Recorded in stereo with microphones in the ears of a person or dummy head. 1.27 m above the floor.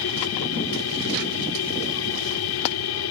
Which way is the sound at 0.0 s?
85° left.